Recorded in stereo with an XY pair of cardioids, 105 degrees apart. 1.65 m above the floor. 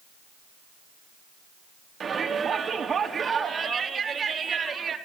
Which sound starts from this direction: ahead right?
A shout, at 2.0 s.